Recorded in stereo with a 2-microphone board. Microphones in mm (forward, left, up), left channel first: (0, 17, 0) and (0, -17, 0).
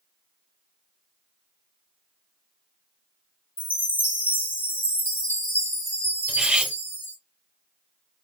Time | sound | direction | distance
3.6 | a chime | 65° left (ahead or behind) | 1.7 m
6.3 | cutlery clinking | 25° right (ahead or behind) | 0.7 m